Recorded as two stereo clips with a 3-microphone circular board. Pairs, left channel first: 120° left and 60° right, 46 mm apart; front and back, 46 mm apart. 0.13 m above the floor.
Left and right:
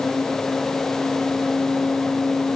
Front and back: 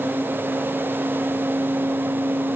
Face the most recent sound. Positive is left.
No sound to turn to.